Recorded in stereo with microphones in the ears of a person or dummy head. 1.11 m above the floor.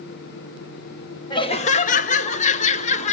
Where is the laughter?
20° left (ahead or behind), 0.6 m; by 3.1 s 35° left (ahead or behind), 1.4 m.